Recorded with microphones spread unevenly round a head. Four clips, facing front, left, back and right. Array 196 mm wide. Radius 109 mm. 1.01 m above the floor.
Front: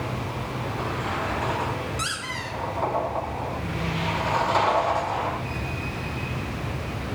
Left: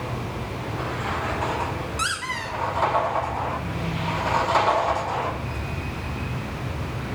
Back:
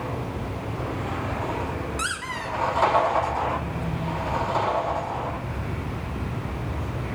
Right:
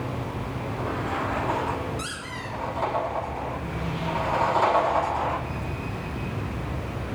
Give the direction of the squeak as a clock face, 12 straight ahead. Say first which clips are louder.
Left 6 dB, back 2 dB; 8 o'clock.